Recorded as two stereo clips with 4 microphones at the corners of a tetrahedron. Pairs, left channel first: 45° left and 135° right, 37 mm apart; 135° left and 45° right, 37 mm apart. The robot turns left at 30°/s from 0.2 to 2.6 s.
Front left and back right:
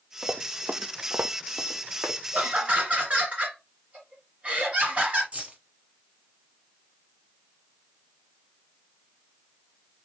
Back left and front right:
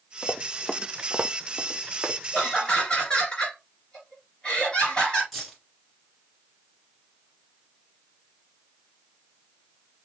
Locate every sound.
0.2 s running footsteps: 165° right, 0.9 m; by 2.2 s 105° right, 1.5 m
2.3 s laughter: 160° right, 2.5 m; by 5.2 s 170° right, 2.5 m
5.3 s keys jangling: 135° right, 1.3 m